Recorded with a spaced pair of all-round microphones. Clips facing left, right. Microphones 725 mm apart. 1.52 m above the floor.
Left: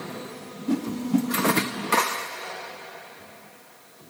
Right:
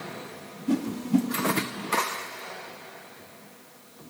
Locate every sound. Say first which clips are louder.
0.7 s a whoosh: even; centre (ahead or behind), 0.5 m